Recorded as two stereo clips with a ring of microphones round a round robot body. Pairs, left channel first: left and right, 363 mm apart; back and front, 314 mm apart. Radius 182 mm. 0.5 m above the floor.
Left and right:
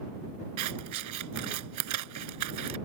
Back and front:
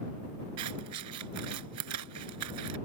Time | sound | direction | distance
0.6 | scissors | 50° right | ?